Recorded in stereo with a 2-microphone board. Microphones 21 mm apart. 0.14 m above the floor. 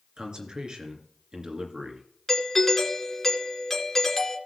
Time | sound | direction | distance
0.2 | a man speaking | 45° right (ahead or behind) | 2.5 m
2.3 | a doorbell | 20° left (ahead or behind) | 2.5 m